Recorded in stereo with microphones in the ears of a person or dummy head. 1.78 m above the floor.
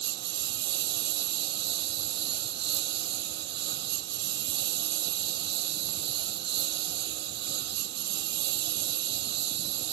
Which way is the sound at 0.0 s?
60° right (ahead or behind).